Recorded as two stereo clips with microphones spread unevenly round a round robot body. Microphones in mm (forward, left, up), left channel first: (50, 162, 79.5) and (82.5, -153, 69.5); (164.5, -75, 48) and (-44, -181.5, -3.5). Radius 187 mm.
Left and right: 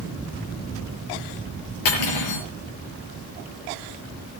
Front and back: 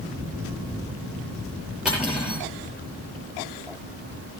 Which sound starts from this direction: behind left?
Cutlery clinking, at 1.9 s.